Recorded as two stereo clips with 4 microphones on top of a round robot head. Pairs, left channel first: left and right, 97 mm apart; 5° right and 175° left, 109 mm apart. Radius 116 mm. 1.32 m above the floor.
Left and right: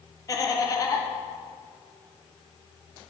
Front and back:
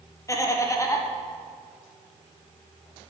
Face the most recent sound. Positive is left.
turn(degrees=45)